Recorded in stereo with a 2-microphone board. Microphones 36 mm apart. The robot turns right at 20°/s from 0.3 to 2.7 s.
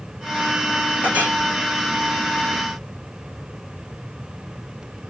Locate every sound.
1.0 s a clink: 45° right (ahead or behind), 1.5 m; by 1.3 s 40° right (ahead or behind), 1.5 m